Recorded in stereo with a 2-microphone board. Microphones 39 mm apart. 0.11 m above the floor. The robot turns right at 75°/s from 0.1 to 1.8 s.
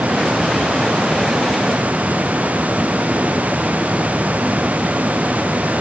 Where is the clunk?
I don't hear a clunk.